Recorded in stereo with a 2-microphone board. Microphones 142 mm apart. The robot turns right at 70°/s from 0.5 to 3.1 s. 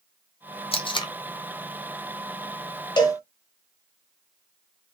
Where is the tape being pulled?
40° left (ahead or behind), 0.6 m; by 1.1 s 30° left (ahead or behind), 0.6 m.